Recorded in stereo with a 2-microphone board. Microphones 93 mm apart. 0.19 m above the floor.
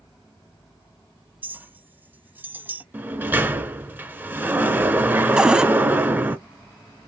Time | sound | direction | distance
1.4 | a clink | 20° right (ahead or behind) | 0.6 m
2.9 | a sliding door | 20° right (ahead or behind) | 0.8 m
5.4 | a cupboard door | 10° right (ahead or behind) | 0.5 m